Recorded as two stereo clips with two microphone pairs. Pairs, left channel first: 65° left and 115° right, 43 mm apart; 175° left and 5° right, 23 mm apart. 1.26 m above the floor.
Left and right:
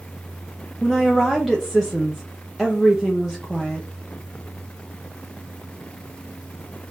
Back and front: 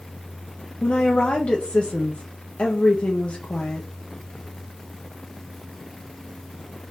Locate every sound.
0.8 s a woman speaking: 155° left, 0.7 m